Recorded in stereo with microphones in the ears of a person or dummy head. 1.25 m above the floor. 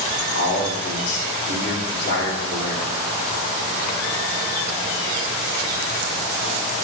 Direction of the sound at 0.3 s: 65° left (ahead or behind).